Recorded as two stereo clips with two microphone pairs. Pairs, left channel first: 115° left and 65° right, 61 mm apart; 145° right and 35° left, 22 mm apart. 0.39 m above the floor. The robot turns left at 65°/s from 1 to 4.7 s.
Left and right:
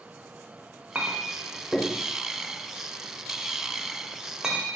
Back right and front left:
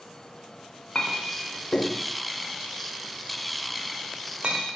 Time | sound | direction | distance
0.9 | a clink | 125° right | 0.5 m